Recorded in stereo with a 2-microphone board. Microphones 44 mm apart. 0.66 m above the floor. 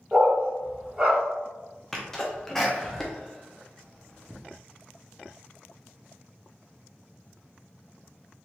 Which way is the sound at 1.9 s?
10° left (ahead or behind).